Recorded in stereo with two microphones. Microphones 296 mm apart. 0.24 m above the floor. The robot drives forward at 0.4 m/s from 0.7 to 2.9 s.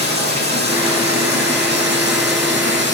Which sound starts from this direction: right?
Running water, at 0.0 s.